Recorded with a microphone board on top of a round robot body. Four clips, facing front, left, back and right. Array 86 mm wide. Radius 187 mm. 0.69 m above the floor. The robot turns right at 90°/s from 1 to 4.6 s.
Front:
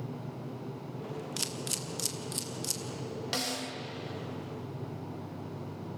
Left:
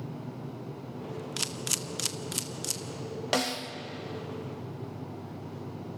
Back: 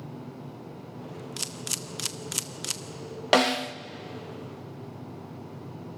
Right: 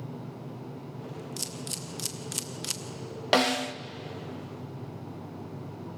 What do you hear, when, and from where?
1.4 s a camera shutter: 85° left, 1.3 m; by 2.8 s 140° right, 1.3 m
3.3 s a snare drum: 160° right, 0.9 m; by 3.8 s 120° right, 0.9 m